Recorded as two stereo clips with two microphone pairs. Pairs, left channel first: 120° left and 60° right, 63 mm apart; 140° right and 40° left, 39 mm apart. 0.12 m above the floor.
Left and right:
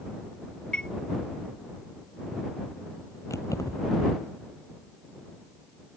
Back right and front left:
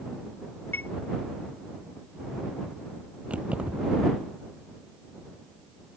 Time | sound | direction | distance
0.7 | a chime | 160° right | ?
3.3 | keys jangling | 95° left | ?